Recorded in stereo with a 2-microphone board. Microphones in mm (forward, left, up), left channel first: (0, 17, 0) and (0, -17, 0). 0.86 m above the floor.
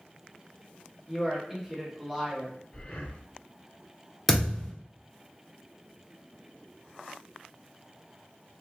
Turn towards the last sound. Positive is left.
turn(degrees=0)  # may be behind; listen again after turning